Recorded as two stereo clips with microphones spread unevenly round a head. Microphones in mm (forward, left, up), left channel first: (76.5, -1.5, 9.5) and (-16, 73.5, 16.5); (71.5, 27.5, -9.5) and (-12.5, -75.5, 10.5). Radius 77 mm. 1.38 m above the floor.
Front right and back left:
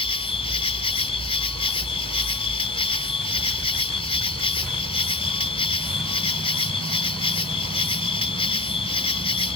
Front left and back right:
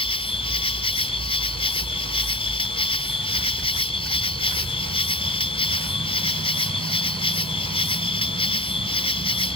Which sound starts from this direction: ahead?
An insect, at 0.0 s.